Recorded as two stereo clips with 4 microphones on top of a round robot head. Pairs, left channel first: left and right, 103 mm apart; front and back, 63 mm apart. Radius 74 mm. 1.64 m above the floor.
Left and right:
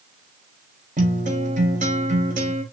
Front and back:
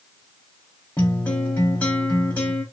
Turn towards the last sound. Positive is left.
turn(degrees=-75)